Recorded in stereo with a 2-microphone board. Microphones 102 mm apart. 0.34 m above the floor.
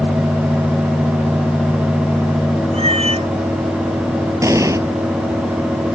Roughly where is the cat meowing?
Right.